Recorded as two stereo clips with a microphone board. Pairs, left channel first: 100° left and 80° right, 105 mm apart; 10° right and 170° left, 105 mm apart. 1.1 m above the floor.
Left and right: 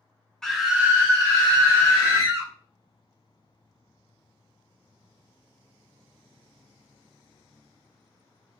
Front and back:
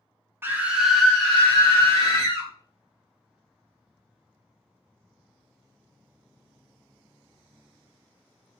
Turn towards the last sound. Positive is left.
turn(degrees=-70)